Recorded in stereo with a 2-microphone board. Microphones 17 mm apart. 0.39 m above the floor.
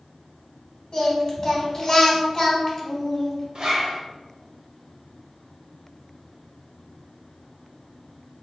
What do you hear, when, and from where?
0.9 s singing: 40° left (ahead or behind), 1.6 m
3.5 s a zipper: 50° right (ahead or behind), 0.8 m